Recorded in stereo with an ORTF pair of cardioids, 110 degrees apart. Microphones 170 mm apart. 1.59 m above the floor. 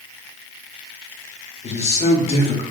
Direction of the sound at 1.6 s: 40° left.